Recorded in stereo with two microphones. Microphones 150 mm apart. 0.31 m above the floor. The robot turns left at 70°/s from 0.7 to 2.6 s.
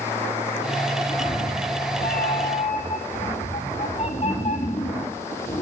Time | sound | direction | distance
1.1 | a cat meowing | 155° left | 3.5 m